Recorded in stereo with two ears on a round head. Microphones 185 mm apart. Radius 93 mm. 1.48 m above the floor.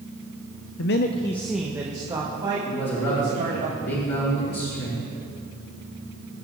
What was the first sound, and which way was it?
A man speaking, 65° left (ahead or behind).